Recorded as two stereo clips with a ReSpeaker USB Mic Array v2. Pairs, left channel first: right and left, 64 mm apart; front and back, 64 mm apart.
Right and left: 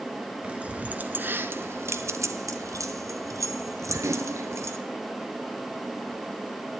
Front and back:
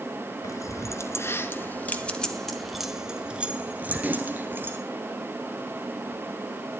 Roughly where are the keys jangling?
Ahead.